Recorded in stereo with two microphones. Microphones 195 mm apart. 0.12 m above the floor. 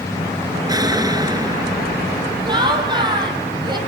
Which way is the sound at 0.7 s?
20° right (ahead or behind).